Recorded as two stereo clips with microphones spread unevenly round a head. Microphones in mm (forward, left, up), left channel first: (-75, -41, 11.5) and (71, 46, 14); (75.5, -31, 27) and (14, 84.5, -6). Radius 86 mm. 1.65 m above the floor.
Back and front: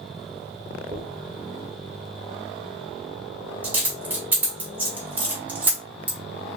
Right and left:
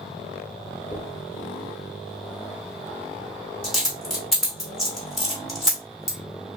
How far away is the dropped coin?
About 1.2 m.